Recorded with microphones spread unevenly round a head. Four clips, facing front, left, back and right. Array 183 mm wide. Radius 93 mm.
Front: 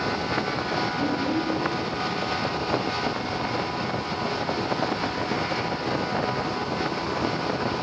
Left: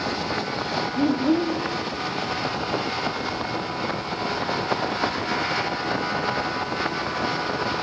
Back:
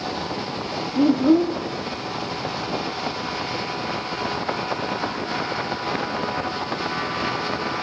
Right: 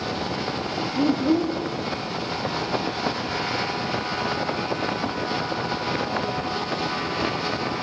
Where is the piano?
I don't hear a piano.